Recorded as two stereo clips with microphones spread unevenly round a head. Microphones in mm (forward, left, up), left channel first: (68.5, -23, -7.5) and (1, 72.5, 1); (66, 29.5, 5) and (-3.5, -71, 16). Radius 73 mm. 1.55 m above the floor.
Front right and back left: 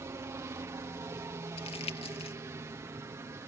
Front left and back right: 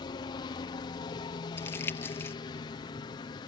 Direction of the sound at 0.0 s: 75° left.